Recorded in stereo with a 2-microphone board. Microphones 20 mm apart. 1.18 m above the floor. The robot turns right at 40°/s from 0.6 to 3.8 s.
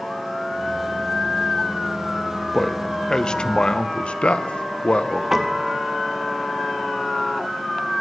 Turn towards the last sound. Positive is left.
turn(degrees=-15)  # may be behind; listen again after turning